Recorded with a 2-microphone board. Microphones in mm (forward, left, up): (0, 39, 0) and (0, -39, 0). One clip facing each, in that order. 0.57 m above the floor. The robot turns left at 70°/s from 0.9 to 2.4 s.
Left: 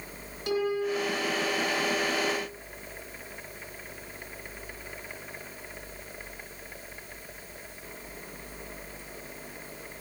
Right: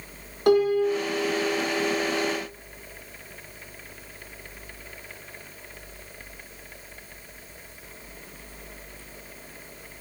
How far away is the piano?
About 9 m.